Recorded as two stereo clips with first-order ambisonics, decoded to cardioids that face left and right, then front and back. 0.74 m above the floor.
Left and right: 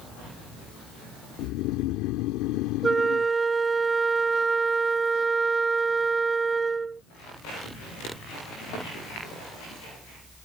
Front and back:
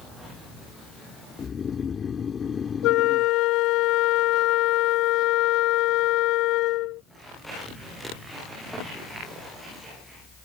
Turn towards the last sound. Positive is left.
turn(degrees=-15)